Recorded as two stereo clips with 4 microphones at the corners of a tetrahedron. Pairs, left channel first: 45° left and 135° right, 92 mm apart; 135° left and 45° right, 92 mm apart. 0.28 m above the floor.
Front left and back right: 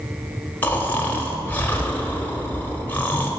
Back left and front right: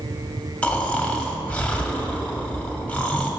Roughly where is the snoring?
Left.